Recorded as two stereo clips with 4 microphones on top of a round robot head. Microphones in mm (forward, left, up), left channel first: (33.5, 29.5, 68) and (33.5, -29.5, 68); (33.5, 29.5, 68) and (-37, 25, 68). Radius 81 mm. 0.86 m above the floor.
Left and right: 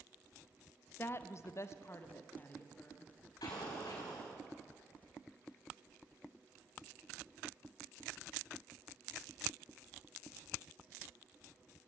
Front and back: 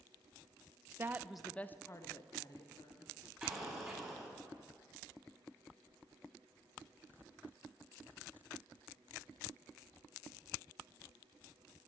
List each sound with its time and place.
1.0 s a woman speaking: 135° left, 0.7 m; by 3.1 s 25° left, 1.7 m
3.4 s an explosion: 95° left, 4.5 m